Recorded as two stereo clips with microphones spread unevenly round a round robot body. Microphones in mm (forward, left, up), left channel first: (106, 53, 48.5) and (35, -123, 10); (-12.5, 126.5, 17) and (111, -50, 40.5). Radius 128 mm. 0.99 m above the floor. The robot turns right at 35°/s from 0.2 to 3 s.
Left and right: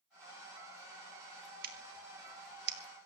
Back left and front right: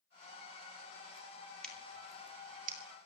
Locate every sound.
1.6 s scissors: 150° right, 2 m; by 2.8 s 110° right, 2 m